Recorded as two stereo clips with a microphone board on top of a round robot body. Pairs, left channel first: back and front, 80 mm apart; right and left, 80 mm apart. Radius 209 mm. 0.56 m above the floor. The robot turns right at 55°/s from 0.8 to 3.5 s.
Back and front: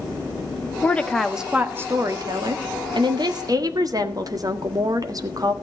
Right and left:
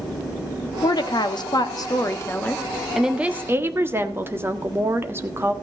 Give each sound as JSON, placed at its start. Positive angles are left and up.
{"t": 0.8, "sound": "a woman speaking", "azimuth_deg": -115, "distance_m": 1.8}